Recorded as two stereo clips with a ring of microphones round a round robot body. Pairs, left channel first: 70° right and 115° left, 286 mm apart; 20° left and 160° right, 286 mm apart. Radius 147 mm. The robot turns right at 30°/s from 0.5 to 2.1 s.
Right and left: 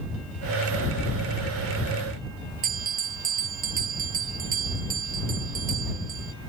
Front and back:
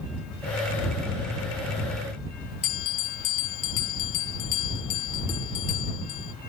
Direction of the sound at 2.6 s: 50° left.